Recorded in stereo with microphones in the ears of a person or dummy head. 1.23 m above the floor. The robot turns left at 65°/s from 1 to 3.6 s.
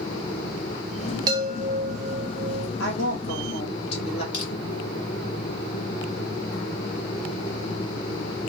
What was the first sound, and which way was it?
A chime, 25° right.